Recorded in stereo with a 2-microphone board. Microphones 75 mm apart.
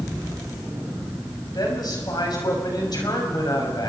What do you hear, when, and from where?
1.5 s a woman speaking: 65° left (ahead or behind), 6 m